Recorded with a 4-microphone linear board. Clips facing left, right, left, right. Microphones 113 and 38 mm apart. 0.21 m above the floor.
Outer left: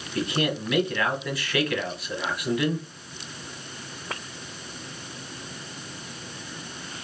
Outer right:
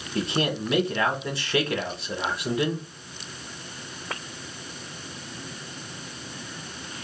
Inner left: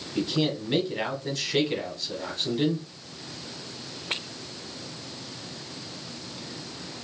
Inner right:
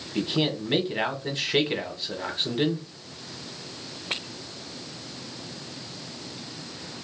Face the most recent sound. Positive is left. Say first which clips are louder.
# even, even
turn(degrees=-30)  # may be behind; listen again after turning